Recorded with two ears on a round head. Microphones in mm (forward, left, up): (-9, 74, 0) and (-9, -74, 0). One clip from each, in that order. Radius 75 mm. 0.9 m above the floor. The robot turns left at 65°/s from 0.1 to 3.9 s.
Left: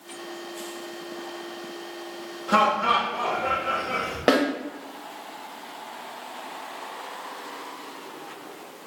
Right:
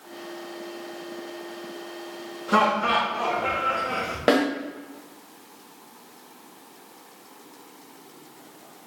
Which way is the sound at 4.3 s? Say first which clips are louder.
Even; 10° left (ahead or behind).